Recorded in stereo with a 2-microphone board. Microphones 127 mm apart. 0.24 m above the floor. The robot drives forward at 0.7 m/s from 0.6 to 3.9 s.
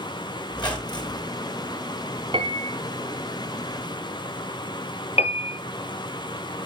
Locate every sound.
0.5 s a squeak: 35° left (ahead or behind), 3.5 m; by 1.3 s 30° left (ahead or behind), 4 m
2.3 s a piano: 40° right (ahead or behind), 1.3 m; by 2.8 s 50° right (ahead or behind), 1.1 m
5.2 s a piano: 55° left (ahead or behind), 0.8 m